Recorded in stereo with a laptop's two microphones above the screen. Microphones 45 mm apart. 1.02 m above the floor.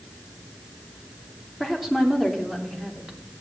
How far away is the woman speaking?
About 3 m.